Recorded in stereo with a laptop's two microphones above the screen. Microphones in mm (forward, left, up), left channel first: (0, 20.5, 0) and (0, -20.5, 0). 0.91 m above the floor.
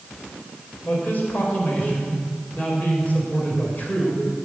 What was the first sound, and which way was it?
A man speaking, 40° left (ahead or behind).